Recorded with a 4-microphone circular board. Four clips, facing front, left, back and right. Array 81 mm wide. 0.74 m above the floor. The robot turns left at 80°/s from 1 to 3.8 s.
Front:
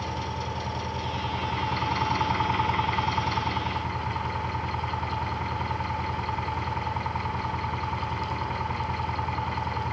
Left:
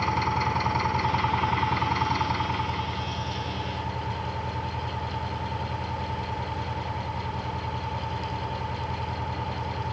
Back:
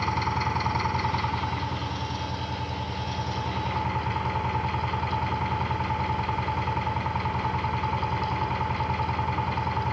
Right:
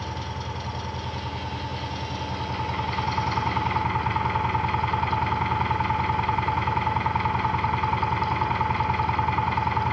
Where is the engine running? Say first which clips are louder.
Left 8 dB, back 5 dB; 130° left, 3 m; by 9.9 s 95° right, 3 m.